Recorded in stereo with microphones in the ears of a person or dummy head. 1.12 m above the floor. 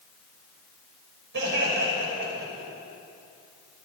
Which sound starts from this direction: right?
Laughter, at 1.3 s.